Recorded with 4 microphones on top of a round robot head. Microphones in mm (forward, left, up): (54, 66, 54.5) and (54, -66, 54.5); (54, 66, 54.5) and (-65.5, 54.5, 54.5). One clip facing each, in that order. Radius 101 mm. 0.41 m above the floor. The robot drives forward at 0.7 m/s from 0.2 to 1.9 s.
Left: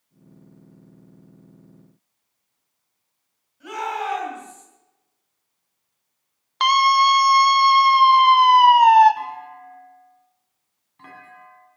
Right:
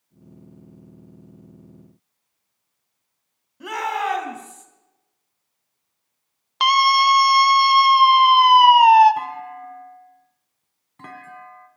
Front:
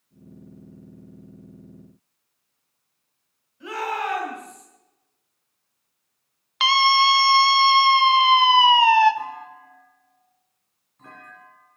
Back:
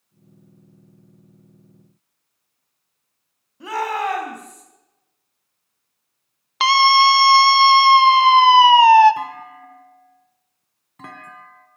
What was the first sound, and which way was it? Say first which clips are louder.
A shout: right 2 dB, back 4 dB; 125° right.